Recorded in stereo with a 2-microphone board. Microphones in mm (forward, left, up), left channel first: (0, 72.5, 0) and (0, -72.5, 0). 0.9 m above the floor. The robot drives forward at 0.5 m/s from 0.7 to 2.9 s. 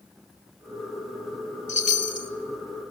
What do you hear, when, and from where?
1.7 s a chime: 60° left (ahead or behind), 1.3 m; by 2.3 s 55° left (ahead or behind), 1.4 m